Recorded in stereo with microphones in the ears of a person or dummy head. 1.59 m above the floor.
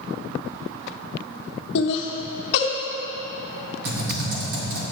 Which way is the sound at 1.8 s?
65° left (ahead or behind).